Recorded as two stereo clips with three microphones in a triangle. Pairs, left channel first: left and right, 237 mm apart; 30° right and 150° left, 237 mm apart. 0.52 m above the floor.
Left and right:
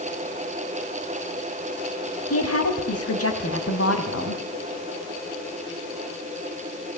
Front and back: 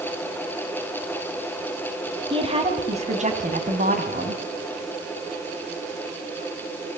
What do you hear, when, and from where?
2.3 s a woman speaking: 80° left, 3.5 m; by 4.4 s 105° left, 3.5 m